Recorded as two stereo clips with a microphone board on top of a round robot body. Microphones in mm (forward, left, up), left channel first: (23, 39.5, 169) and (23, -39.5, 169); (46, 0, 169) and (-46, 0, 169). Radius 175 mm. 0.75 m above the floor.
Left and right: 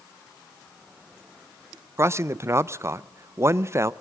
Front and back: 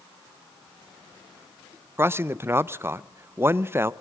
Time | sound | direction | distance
2.0 | a man speaking | 125° right | 0.6 m